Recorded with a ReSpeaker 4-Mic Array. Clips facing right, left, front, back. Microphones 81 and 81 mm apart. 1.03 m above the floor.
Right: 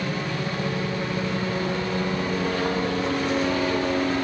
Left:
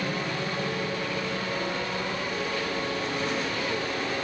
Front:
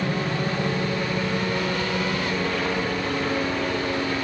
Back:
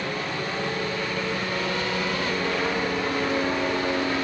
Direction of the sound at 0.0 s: 5° left.